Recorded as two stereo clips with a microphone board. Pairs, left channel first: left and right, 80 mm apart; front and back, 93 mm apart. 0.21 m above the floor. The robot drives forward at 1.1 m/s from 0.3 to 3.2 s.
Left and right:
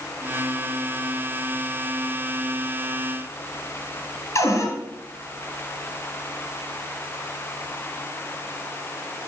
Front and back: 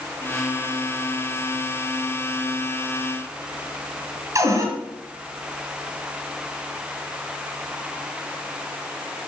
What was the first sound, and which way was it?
A cupboard door, 135° left.